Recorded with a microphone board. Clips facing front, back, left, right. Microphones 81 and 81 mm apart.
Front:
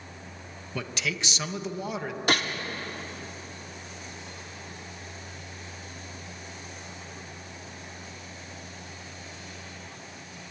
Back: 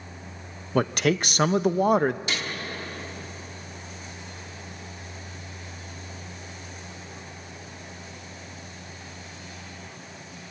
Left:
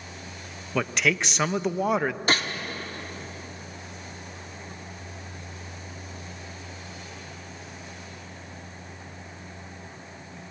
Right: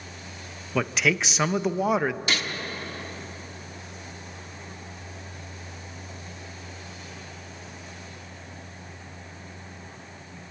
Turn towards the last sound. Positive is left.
turn(degrees=35)